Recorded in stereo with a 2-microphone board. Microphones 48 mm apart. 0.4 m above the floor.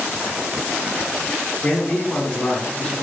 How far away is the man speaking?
About 1.2 m.